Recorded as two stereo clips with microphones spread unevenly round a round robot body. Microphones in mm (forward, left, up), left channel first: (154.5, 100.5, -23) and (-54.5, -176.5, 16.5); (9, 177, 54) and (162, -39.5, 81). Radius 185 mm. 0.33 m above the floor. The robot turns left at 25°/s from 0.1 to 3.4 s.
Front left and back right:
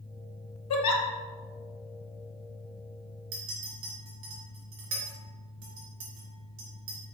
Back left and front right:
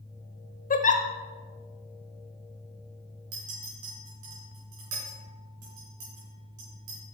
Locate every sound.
0.7 s a giggle: 75° left, 0.9 m; by 1.0 s 70° left, 0.9 m
3.3 s a clink: 80° right, 3.5 m; by 7.0 s 85° right, 3.5 m